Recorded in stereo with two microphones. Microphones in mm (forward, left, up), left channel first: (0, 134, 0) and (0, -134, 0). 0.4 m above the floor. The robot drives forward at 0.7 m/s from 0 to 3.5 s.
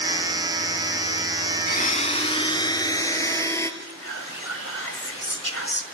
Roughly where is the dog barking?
No dog barking in this recording.